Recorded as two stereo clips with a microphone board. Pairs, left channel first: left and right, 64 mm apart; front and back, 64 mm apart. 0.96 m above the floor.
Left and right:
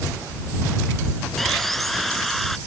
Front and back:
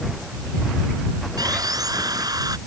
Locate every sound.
1.4 s sawing: straight behind